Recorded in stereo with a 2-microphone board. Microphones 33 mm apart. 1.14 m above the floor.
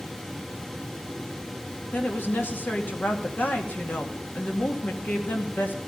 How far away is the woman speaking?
About 2.5 m.